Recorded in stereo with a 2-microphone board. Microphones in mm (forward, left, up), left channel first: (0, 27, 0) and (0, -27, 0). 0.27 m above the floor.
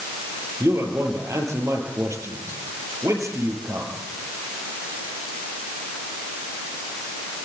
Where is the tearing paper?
I don't hear tearing paper.